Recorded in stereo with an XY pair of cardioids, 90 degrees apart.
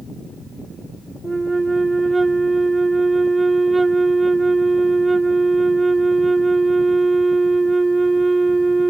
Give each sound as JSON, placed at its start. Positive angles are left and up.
{"t": 1.2, "sound": "a flute", "azimuth_deg": -25}